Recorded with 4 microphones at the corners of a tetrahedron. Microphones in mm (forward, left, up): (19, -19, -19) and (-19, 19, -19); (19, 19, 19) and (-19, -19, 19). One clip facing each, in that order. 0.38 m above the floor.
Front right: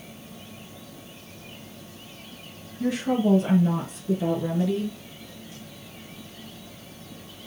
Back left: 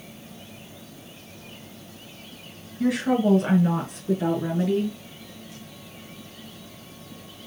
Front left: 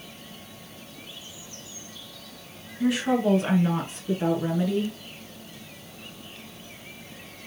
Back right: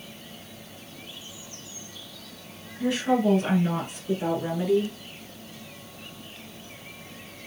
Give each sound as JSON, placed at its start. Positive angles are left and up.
{"t": 2.8, "sound": "a woman speaking", "azimuth_deg": 120, "distance_m": 4.5}